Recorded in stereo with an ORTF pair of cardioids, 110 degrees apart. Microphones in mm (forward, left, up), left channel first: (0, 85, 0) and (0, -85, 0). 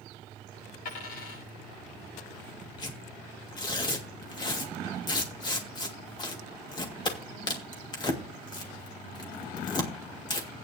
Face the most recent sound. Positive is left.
turn(degrees=25)